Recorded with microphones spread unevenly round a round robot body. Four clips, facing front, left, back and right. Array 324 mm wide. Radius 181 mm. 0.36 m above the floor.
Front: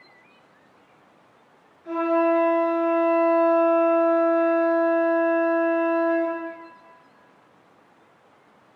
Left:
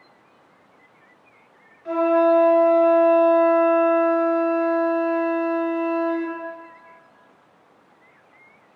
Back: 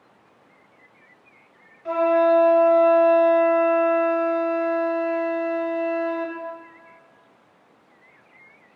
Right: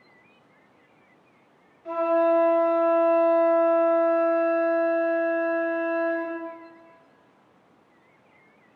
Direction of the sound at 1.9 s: 160° left.